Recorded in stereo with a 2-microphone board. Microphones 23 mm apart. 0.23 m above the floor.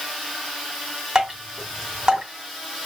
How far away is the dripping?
About 1.9 m.